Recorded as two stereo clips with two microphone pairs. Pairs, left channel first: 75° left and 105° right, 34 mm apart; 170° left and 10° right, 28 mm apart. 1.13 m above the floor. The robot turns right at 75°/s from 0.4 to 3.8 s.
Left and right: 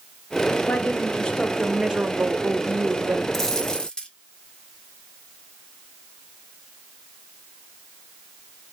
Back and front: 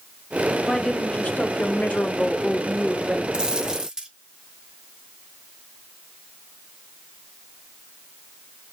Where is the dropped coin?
10° left, 0.5 m; by 4.1 s 45° left, 0.5 m.